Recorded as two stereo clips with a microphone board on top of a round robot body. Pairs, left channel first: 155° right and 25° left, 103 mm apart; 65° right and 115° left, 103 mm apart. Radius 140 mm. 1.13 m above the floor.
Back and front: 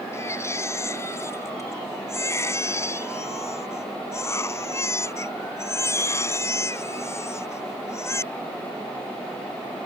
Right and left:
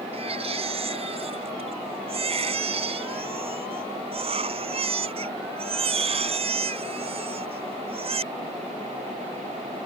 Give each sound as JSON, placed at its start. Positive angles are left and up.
{"t": 0.1, "sound": "a baby crying", "azimuth_deg": 140}